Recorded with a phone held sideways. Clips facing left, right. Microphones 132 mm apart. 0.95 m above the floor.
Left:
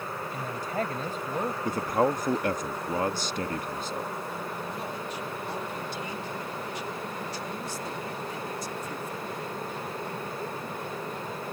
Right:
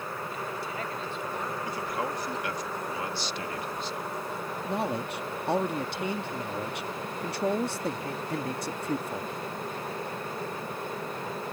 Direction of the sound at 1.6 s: 50° left (ahead or behind).